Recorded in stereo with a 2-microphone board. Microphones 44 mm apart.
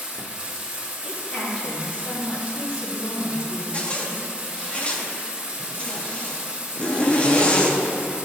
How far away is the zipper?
About 0.8 m.